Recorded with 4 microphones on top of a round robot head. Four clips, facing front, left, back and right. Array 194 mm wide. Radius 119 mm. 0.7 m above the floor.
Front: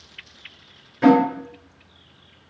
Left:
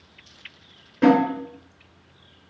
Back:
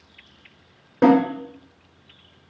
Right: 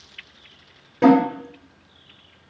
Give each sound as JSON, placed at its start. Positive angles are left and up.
{"t": 1.0, "sound": "a snare drum", "azimuth_deg": -160, "distance_m": 3.5}